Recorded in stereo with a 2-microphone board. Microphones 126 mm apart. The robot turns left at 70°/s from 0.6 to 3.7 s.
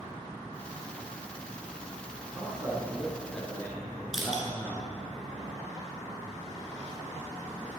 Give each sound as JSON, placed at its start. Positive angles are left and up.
{"t": 2.2, "sound": "a man speaking", "side_deg": -30, "distance_m": 1.7}
{"t": 4.1, "sound": "crushing", "side_deg": -5, "distance_m": 1.8}